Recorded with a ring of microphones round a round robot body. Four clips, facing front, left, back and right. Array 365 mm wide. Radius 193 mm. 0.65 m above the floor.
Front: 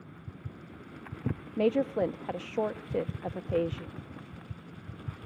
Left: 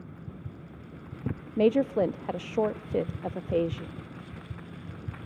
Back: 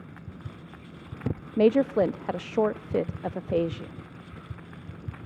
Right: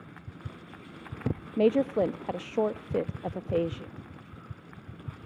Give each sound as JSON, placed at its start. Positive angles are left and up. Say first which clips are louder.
{"t": 1.6, "sound": "a woman speaking", "louder": "left 1 dB, back 6 dB", "azimuth_deg": 175, "distance_m": 0.7}